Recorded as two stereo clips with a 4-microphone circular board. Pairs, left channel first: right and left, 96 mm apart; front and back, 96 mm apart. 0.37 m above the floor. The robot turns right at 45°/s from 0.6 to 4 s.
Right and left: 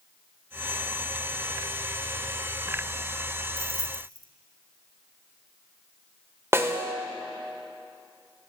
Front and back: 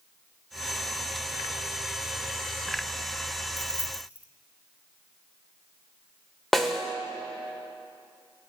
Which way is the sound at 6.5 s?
85° left.